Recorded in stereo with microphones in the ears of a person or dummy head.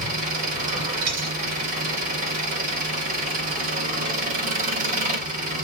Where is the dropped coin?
70° right (ahead or behind), 4 m.